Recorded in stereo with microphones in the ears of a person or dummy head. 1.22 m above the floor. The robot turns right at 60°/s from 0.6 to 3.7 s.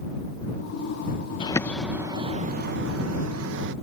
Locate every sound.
1.4 s a bird: 160° left; by 3.7 s 65° right